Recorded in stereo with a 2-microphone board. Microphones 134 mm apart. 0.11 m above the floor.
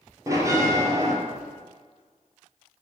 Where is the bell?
25° right (ahead or behind), 1.1 m.